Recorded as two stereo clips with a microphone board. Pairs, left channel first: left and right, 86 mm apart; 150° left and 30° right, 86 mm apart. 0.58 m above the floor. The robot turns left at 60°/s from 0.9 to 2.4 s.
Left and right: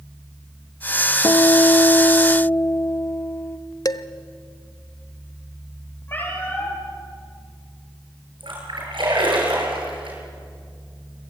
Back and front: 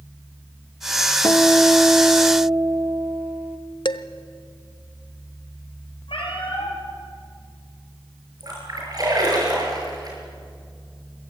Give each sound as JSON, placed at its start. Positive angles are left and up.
{"t": 1.2, "sound": "a guitar", "azimuth_deg": 110, "distance_m": 1.2}
{"t": 3.9, "sound": "dishes clattering", "azimuth_deg": 130, "distance_m": 0.9}
{"t": 6.1, "sound": "a cat meowing", "azimuth_deg": 155, "distance_m": 6.5}
{"t": 8.4, "sound": "a splash", "azimuth_deg": -70, "distance_m": 7.5}